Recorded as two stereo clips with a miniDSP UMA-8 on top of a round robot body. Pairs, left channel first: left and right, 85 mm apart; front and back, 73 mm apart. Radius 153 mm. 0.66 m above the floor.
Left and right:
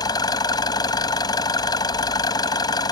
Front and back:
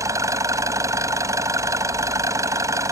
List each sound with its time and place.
0.0 s an engine running: 130° left